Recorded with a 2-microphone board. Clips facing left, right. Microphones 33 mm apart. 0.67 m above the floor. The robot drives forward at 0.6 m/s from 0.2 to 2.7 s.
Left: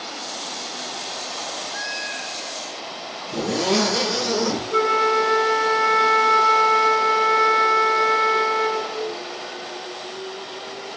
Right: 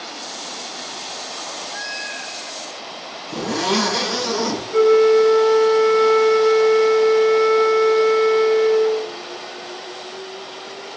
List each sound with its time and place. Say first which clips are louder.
3.3 s a zipper: right 1 dB; 20° right (ahead or behind), 1.9 m
4.7 s a flute: right 7 dB; 50° left (ahead or behind), 0.9 m